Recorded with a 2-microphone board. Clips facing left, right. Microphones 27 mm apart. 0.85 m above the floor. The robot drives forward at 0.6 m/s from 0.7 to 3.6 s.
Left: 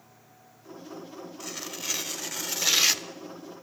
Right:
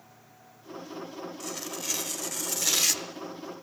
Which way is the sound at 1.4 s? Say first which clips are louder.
Left 2 dB; 15° left (ahead or behind).